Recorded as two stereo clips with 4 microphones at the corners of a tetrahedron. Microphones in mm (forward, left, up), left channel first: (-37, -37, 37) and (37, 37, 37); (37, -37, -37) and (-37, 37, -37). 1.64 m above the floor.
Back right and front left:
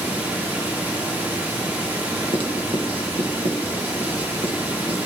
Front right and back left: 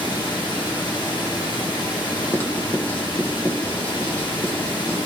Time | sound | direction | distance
0.0 | running water | 20° right | 1.5 m
2.3 | writing | 25° left | 1.2 m